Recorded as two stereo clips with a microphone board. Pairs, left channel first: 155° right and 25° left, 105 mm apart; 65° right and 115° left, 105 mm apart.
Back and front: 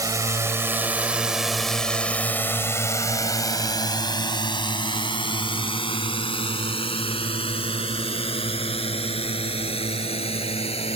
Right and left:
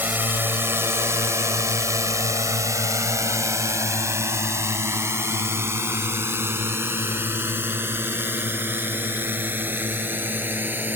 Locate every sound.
0.0 s a drone: 50° left; by 11.0 s 175° right